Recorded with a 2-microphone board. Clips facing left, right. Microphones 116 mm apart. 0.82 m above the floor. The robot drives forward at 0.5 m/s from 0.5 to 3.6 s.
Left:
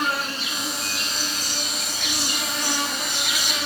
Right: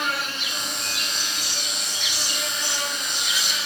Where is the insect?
40° left (ahead or behind), 1.8 m; by 3.7 s 60° left (ahead or behind), 1.3 m.